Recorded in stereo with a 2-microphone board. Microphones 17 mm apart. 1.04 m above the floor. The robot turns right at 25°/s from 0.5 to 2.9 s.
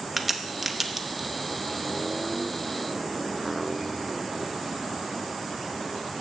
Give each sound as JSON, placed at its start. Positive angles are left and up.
{"t": 0.2, "sound": "a crack", "side_deg": -5, "distance_m": 0.8}